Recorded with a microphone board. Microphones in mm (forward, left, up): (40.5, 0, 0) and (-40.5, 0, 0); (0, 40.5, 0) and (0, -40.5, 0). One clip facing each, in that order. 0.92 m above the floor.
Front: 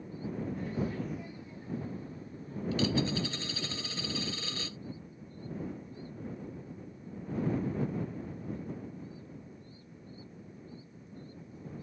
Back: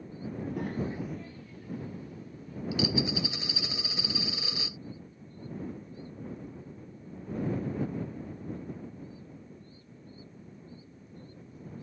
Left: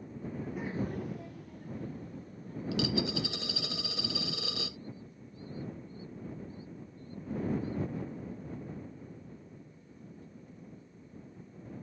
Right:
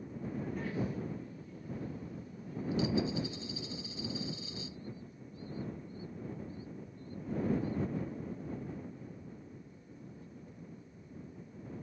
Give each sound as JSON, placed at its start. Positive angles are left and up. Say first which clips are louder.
{"t": 0.3, "sound": "a child speaking", "louder": "back 2 dB, even", "azimuth_deg": -170}
{"t": 2.7, "sound": "a dropped coin", "louder": "even, even", "azimuth_deg": 100}